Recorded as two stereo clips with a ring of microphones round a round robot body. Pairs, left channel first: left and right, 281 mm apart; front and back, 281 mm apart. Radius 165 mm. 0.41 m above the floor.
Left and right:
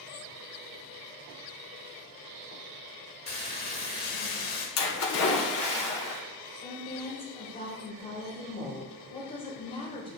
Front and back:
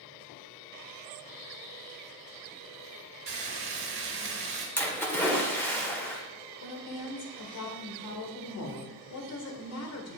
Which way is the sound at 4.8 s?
80° left.